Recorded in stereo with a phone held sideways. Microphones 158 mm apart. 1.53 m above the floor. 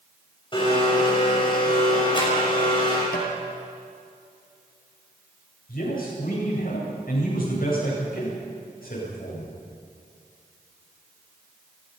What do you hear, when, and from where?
0.5 s a blender: 30° left (ahead or behind), 6.5 m
3.1 s tapping: 75° left (ahead or behind), 6 m
5.7 s a man speaking: 70° left (ahead or behind), 9 m